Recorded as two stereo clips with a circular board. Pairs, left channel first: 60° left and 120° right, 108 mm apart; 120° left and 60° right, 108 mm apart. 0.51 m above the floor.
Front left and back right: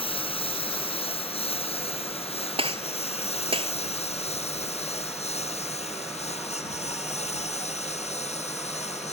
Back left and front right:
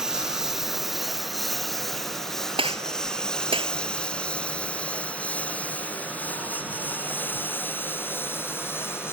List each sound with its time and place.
0.0 s a lawn mower: 25° left; by 9.1 s 55° left
2.6 s a gunshot: 90° right